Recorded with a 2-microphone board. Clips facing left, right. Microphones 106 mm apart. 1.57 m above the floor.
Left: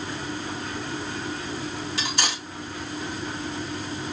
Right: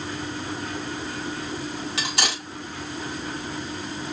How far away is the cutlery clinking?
About 4.5 m.